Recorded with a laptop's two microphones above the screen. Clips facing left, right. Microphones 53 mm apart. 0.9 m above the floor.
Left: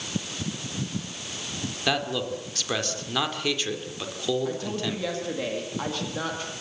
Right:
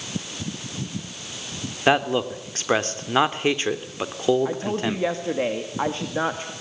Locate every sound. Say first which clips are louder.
1.9 s a man speaking: right 7 dB; 30° right (ahead or behind), 3 m
4.5 s a woman speaking: right 4 dB; 30° right (ahead or behind), 1.7 m